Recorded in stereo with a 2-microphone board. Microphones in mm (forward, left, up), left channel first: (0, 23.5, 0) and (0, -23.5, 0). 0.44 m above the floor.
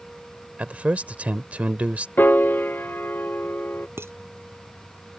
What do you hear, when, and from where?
0.6 s a man speaking: 35° right (ahead or behind)
2.2 s a piano: 50° left (ahead or behind)
4.0 s dishes clattering: 65° right (ahead or behind)